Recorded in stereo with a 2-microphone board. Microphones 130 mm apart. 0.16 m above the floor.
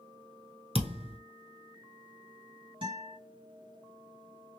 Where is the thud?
50° right (ahead or behind), 0.8 m.